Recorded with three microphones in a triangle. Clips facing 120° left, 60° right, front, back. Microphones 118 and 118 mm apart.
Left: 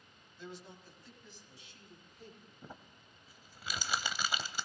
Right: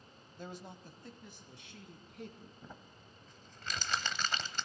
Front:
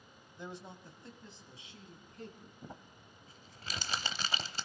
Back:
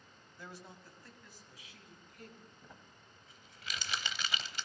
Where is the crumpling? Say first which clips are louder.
Even, front 6 dB; 40° left, 0.8 m.